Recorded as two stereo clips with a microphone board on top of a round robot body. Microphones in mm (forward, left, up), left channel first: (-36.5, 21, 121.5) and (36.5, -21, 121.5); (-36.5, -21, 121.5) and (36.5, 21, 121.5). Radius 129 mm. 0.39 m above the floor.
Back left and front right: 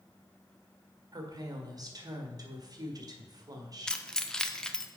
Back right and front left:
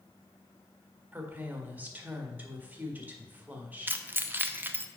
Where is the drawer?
I don't hear a drawer.